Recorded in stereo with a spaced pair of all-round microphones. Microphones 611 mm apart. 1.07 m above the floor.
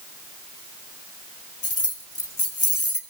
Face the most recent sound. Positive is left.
turn(degrees=65)  # may be behind; listen again after turning